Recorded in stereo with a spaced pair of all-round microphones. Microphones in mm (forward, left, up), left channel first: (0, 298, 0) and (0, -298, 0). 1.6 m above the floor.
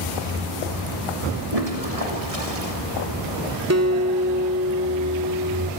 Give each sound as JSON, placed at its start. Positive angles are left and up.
{"t": 1.5, "sound": "a toilet flushing", "side_deg": -70, "distance_m": 3.0}
{"t": 3.7, "sound": "a guitar", "side_deg": -25, "distance_m": 1.9}